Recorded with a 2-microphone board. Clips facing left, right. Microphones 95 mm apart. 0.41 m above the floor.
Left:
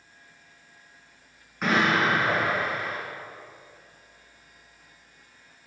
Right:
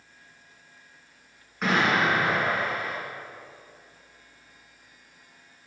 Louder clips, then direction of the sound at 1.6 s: Even; centre (ahead or behind).